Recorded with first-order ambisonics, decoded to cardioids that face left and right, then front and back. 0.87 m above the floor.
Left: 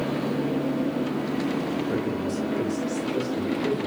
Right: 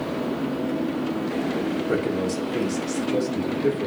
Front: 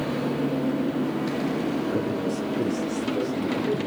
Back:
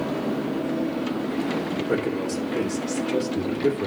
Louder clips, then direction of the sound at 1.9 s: Right 3 dB, back 2 dB; 130° right.